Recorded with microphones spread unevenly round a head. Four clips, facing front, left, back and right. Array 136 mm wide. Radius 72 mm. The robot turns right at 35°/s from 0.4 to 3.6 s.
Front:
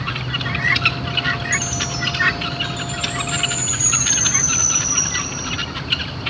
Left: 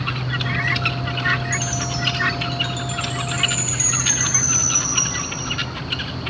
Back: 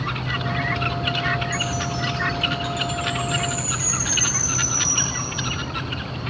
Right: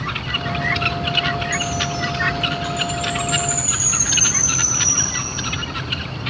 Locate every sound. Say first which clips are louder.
1.5 s a chime: right 3 dB, even; 50° left, 1.0 m; by 5.5 s 125° left, 1.0 m